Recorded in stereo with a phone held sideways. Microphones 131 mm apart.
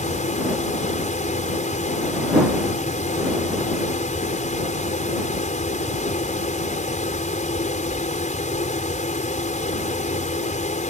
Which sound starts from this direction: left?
A fan, at 0.0 s.